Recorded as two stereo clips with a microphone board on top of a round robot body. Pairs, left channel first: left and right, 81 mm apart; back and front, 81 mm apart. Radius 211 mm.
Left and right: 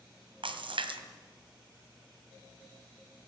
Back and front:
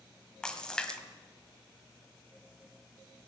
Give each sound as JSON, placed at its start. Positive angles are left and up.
{"t": 0.4, "sound": "a splash", "azimuth_deg": -100, "distance_m": 2.0}